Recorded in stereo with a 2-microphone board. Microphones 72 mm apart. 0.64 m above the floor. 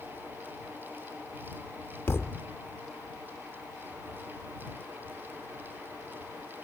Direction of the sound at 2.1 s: 35° left (ahead or behind).